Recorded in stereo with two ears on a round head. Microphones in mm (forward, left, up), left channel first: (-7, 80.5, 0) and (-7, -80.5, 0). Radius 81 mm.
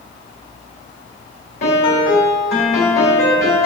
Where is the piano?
55° left (ahead or behind), 3.5 m.